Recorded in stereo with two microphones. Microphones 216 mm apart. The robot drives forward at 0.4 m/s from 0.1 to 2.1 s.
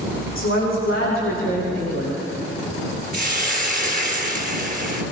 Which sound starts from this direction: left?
A woman speaking, at 0.3 s.